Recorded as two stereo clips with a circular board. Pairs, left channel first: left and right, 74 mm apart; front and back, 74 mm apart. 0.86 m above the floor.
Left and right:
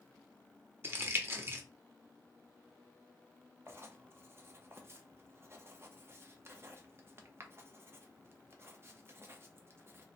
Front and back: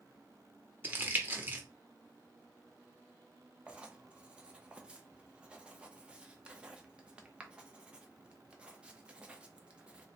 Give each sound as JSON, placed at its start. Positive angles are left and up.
{"t": 0.8, "sound": "crumpling", "azimuth_deg": -130, "distance_m": 0.6}
{"t": 3.7, "sound": "writing", "azimuth_deg": -115, "distance_m": 0.5}